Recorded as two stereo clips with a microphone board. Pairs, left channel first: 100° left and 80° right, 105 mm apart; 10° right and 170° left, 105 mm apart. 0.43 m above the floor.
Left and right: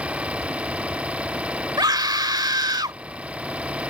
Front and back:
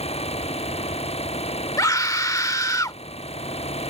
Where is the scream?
55° right.